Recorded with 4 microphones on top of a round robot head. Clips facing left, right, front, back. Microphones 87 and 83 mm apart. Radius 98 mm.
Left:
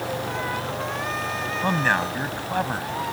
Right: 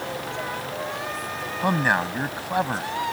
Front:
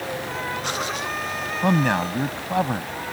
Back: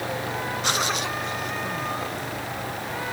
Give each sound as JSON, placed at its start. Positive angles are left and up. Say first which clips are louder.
{"t": 1.6, "sound": "a man speaking", "louder": "right 1 dB, front 8 dB", "azimuth_deg": -10}